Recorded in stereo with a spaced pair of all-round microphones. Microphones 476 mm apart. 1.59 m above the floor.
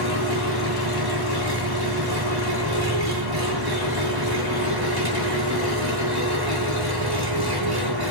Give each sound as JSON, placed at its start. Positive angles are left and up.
{"t": 0.0, "sound": "an engine running", "side_deg": -50, "distance_m": 7.5}